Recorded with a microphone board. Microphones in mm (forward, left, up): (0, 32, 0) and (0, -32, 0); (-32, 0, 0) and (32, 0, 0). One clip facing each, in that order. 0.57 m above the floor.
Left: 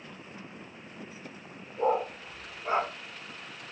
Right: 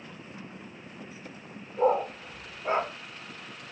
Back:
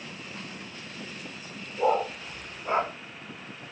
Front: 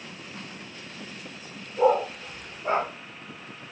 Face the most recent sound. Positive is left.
turn(degrees=-35)